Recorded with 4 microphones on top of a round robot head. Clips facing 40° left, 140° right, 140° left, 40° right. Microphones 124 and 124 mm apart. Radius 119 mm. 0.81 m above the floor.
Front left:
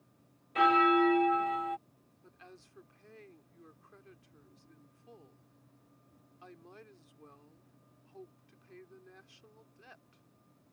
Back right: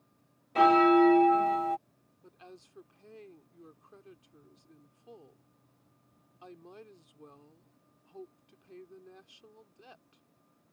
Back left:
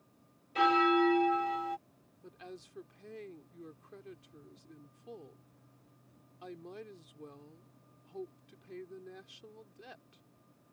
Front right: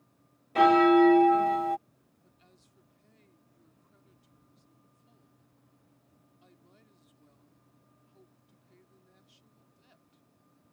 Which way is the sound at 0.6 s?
80° right.